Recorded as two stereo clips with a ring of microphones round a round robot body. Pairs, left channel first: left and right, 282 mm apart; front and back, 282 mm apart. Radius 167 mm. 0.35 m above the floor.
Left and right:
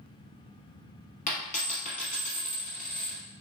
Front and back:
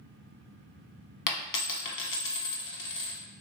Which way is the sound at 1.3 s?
25° left.